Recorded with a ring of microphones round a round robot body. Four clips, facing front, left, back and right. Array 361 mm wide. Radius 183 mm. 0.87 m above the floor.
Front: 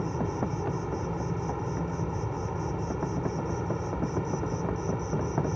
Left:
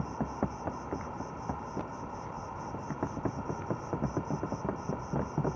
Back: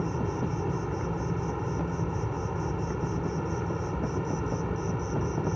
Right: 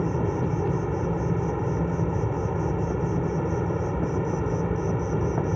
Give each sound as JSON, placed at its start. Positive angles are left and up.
{"t": 0.0, "sound": "an insect", "azimuth_deg": -100}